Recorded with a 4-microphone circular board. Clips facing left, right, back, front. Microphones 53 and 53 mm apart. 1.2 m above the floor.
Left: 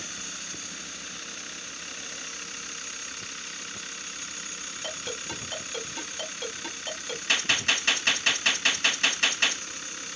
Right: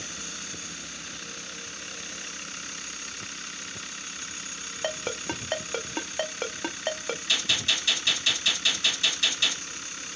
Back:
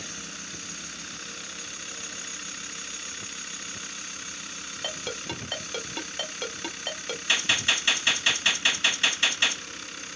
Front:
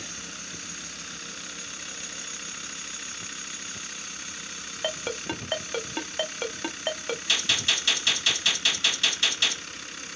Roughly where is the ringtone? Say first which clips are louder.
Right 6 dB, front 4 dB; ahead right.